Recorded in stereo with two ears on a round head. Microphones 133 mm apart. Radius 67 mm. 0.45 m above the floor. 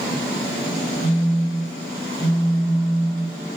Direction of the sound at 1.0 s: 15° left (ahead or behind).